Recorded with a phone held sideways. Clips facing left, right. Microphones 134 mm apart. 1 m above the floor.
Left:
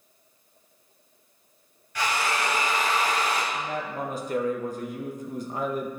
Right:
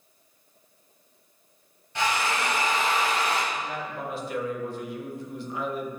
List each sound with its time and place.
1.9 s a drill: 25° right (ahead or behind), 2 m
3.5 s a man speaking: 45° left (ahead or behind), 0.8 m